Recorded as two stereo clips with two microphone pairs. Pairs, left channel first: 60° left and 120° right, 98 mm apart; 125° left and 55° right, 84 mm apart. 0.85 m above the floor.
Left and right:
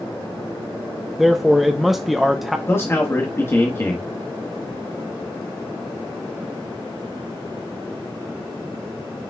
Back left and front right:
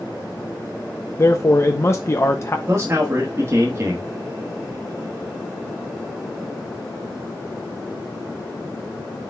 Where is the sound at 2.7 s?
5° right, 1.3 m.